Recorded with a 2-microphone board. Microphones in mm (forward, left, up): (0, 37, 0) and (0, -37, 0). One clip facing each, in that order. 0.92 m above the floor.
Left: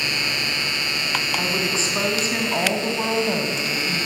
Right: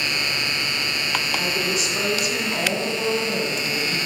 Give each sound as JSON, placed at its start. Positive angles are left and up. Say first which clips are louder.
{"t": 1.4, "sound": "a woman speaking", "louder": "even", "side_deg": 30, "distance_m": 7.0}